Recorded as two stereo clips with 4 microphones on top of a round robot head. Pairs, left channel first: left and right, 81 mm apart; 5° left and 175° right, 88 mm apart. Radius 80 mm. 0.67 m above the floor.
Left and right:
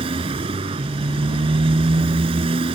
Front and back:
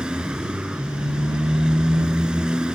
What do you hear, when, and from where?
0.0 s a motorcycle: 90° right